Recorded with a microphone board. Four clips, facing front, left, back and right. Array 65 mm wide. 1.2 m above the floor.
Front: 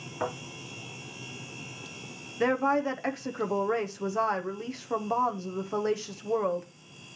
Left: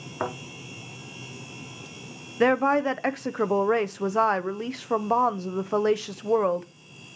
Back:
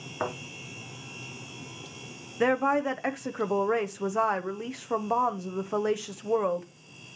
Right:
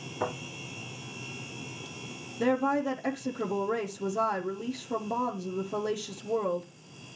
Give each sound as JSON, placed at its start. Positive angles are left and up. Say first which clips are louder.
{"t": 0.2, "sound": "a thud", "louder": "left 2 dB, back 1 dB", "azimuth_deg": 125, "distance_m": 3.5}
{"t": 2.4, "sound": "a woman speaking", "louder": "left 6 dB, back 1 dB", "azimuth_deg": 105, "distance_m": 0.8}